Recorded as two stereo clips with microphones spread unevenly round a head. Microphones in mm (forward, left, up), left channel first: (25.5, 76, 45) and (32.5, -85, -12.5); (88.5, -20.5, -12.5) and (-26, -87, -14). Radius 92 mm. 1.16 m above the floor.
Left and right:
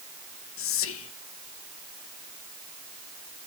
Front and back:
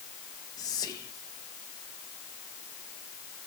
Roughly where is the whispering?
Left.